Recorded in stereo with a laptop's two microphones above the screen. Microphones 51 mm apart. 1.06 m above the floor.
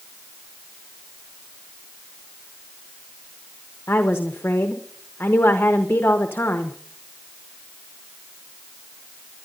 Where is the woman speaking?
45° left (ahead or behind), 1.0 m.